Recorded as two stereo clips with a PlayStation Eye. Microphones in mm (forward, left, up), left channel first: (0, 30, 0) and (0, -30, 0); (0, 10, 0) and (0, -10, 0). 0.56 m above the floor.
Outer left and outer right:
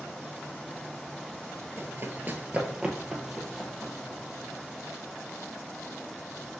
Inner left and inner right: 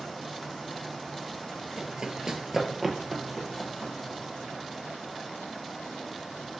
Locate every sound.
1.8 s running footsteps: 45° right (ahead or behind), 0.7 m; by 4.6 s 10° left (ahead or behind), 1.6 m